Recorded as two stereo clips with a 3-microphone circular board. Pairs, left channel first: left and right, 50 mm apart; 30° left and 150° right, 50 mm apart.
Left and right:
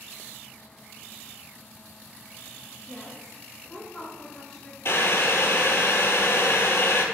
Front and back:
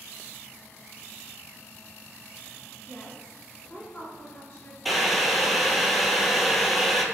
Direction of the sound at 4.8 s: 120° left.